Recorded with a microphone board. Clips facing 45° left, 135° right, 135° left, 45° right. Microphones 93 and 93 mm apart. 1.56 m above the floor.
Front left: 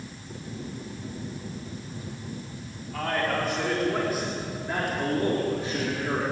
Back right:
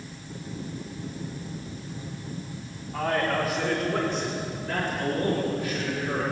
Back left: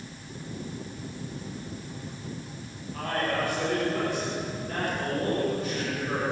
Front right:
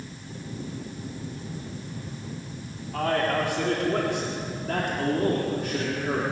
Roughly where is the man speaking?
Ahead right.